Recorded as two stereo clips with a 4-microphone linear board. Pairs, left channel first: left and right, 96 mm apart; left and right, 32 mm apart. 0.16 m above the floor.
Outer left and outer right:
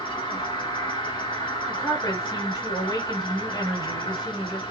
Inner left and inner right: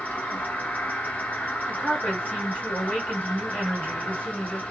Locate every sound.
0.0 s an insect: 60° left (ahead or behind), 1.7 m
1.7 s a woman speaking: 45° left (ahead or behind), 2 m